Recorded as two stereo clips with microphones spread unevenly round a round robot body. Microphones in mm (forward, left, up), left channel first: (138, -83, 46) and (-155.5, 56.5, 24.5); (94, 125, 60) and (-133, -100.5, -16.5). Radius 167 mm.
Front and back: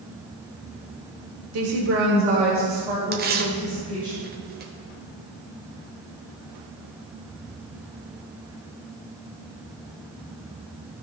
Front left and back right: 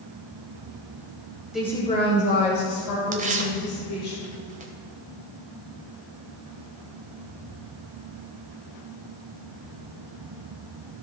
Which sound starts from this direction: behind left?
A woman speaking, at 1.5 s.